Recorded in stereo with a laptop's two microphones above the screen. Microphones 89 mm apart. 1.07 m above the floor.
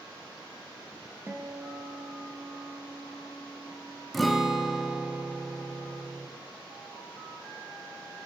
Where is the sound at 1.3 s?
25° right (ahead or behind), 0.6 m.